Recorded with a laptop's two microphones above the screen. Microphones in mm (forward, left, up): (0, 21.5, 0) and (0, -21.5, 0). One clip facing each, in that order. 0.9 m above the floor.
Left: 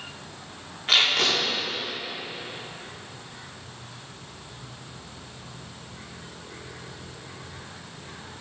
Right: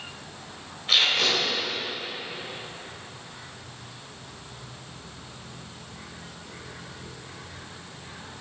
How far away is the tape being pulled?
About 1.7 m.